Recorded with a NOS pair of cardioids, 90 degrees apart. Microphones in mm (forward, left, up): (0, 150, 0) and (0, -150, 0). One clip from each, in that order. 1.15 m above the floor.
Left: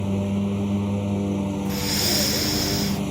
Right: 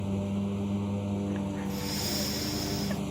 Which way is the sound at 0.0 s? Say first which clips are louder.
Left 7 dB; 50° left.